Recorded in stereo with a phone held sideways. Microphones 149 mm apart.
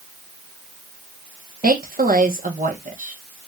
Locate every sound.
1.6 s a woman speaking: 70° right (ahead or behind), 1.2 m